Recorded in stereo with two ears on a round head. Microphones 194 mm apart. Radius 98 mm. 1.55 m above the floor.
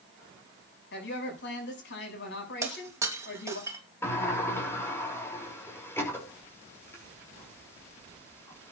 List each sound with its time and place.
0.9 s a woman speaking: 60° left (ahead or behind), 7 m
2.6 s breaking glass: 15° right (ahead or behind), 2.5 m
4.0 s a sliding door: 10° left (ahead or behind), 5.5 m